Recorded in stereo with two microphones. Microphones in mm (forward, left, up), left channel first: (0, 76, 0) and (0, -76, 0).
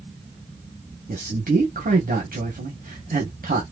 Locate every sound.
1.1 s a man speaking: 75° right (ahead or behind), 1.5 m